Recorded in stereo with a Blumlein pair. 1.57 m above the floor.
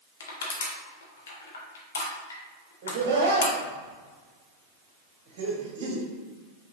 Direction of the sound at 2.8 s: 50° right.